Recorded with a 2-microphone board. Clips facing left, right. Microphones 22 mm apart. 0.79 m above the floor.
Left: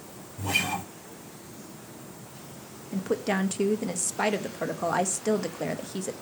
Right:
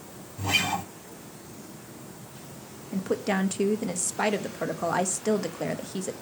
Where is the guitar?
45° right (ahead or behind), 1.0 m.